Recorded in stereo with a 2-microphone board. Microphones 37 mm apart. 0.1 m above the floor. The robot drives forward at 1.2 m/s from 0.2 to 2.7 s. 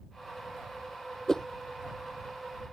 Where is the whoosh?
15° left (ahead or behind); by 1.5 s 10° left (ahead or behind).